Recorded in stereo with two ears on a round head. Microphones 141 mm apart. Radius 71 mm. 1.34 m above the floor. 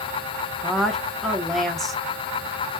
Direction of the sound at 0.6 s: 5° left (ahead or behind).